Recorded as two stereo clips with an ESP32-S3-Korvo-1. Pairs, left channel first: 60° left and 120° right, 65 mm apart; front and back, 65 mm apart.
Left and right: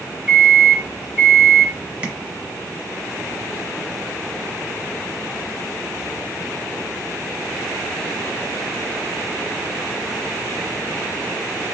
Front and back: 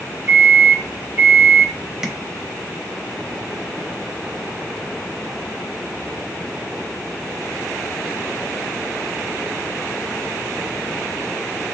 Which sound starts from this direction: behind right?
A microwave, at 0.3 s.